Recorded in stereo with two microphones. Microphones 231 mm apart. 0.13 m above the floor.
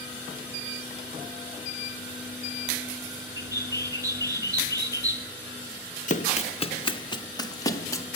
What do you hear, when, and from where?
3.4 s a bird: 15° right (ahead or behind), 1.1 m
6.1 s running footsteps: 35° left (ahead or behind), 1.2 m; by 8.1 s 15° left (ahead or behind), 2.5 m